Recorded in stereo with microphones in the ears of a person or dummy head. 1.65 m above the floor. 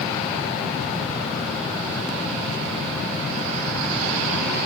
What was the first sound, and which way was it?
Only background noise.